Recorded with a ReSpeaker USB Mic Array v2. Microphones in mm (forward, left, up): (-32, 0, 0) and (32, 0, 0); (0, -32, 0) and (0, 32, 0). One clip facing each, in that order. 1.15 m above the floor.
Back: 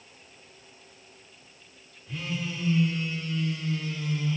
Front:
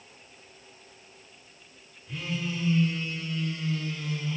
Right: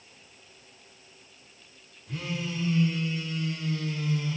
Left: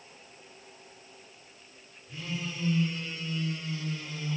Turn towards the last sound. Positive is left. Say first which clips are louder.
# front 1 dB, right 3 dB
turn(degrees=-90)